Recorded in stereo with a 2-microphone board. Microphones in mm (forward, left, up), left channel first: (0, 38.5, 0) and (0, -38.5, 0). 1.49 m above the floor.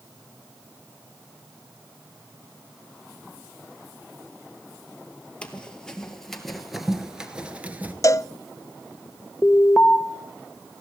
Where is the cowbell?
40° left (ahead or behind), 0.5 m.